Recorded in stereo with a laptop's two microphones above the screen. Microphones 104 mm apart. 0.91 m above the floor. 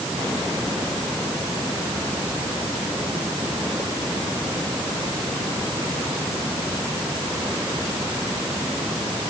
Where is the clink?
I don't hear a clink.